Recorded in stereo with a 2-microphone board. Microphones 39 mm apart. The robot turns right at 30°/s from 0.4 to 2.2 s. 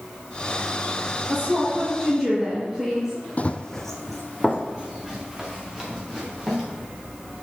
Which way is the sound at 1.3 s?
35° right (ahead or behind).